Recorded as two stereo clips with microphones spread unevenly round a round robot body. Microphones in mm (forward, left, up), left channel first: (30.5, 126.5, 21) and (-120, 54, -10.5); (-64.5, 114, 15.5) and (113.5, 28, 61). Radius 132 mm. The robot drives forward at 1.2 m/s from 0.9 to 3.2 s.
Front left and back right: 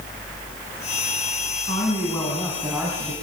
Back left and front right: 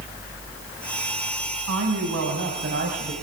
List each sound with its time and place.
1.7 s a woman speaking: 45° right, 3.5 m; by 3.1 s 80° right, 2.5 m